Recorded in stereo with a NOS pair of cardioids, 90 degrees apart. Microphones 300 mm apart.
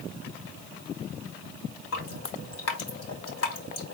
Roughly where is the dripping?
Ahead left.